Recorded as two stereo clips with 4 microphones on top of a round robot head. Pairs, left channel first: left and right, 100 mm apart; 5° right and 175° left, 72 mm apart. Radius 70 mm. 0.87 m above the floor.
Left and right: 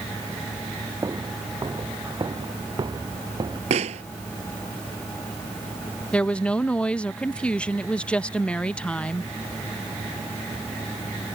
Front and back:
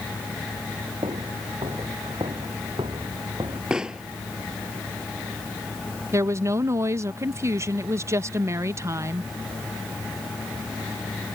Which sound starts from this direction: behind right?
Footsteps, at 1.0 s.